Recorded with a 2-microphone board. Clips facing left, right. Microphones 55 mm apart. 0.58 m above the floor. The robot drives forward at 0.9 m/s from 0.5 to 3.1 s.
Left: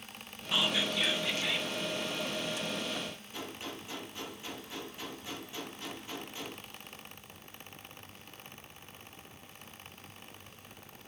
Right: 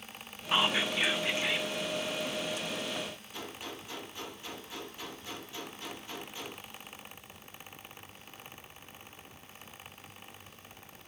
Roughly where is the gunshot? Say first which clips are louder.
Left 1 dB; left.